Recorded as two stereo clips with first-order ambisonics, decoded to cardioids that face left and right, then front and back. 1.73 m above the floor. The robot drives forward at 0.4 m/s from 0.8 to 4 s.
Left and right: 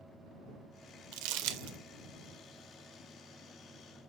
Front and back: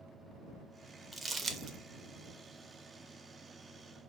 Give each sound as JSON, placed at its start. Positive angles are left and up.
{"t": 1.1, "sound": "crumpling", "azimuth_deg": -95, "distance_m": 0.6}